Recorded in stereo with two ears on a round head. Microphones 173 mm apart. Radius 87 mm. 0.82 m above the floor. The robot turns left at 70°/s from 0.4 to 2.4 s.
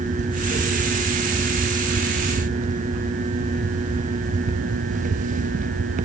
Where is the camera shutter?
No camera shutter in this recording.